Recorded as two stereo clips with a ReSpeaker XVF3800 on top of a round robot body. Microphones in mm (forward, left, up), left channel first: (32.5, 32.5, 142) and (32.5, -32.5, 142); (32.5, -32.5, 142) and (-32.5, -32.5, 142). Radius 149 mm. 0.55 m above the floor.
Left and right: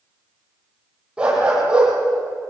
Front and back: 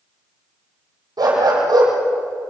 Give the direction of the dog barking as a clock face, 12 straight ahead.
5 o'clock.